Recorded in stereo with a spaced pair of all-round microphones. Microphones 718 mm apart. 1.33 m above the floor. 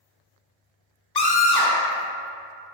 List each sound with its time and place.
1.1 s a scream: 35° left (ahead or behind), 0.5 m